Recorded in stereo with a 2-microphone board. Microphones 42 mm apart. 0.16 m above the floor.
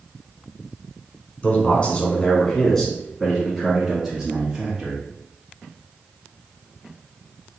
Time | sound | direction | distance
1.4 | a man speaking | 35° left (ahead or behind) | 1.2 m